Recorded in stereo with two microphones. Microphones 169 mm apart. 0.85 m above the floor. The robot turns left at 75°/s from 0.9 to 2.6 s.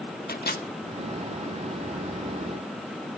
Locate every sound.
0.3 s a microwave: 70° left (ahead or behind), 1.7 m